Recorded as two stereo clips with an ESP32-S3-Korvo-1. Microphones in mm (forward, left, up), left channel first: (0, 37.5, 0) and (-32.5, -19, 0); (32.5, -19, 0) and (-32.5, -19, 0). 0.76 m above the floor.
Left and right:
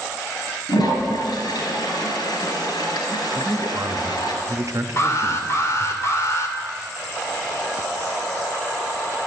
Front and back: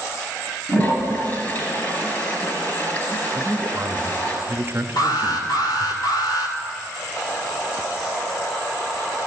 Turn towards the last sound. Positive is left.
turn(degrees=15)